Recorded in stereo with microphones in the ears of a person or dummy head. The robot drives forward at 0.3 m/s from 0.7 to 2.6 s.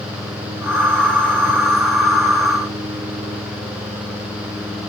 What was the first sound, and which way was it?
Only background noise.